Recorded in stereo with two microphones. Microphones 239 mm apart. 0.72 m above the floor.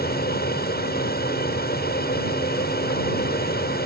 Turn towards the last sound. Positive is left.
turn(degrees=40)  # may be behind; listen again after turning